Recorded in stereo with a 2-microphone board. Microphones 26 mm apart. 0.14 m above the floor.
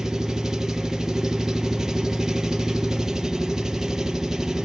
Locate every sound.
0.0 s an engine running: 20° right (ahead or behind), 2 m